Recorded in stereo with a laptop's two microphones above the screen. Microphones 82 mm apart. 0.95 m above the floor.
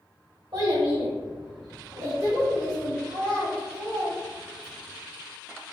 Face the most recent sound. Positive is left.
turn(degrees=-30)  # may be behind; listen again after turning